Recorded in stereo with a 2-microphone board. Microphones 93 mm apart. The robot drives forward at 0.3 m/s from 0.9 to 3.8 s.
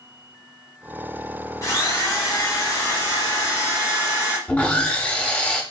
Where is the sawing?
15° left (ahead or behind), 0.8 m.